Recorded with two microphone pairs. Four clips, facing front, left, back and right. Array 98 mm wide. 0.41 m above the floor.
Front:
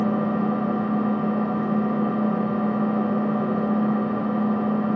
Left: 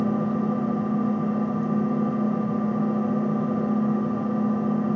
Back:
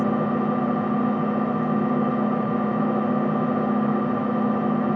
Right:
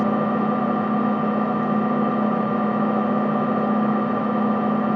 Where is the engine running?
100° right, 1.1 m.